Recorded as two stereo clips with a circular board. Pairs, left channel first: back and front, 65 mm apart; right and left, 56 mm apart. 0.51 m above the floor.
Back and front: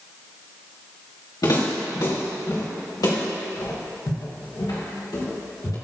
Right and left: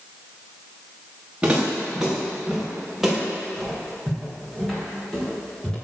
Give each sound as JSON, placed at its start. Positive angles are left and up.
{"t": 1.4, "sound": "footsteps", "azimuth_deg": 165, "distance_m": 3.5}